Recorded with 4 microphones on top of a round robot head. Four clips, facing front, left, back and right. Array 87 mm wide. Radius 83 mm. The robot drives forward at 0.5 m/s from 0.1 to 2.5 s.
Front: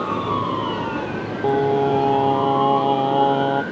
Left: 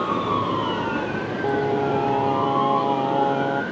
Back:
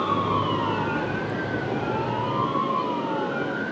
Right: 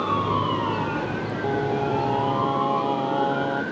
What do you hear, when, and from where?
1.4 s singing: 10° left